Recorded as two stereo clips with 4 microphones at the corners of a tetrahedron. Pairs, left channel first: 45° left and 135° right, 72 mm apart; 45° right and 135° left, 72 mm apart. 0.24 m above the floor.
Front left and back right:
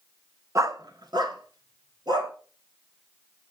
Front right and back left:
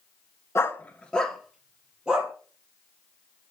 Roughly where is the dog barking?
Right.